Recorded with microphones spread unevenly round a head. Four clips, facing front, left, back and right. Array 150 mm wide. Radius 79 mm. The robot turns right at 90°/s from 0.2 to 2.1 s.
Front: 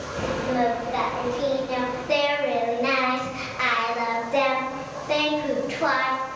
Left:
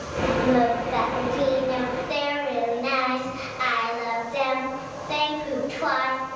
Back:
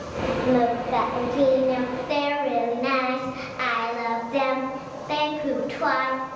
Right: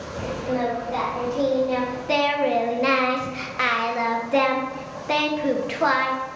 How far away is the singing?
About 0.7 m.